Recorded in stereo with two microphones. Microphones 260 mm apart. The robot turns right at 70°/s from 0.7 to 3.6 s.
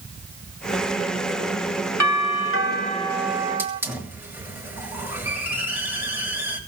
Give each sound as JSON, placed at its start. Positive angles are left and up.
{"t": 2.0, "sound": "a doorbell", "azimuth_deg": 90, "distance_m": 2.0}
{"t": 3.6, "sound": "a hiss", "side_deg": -10, "distance_m": 7.0}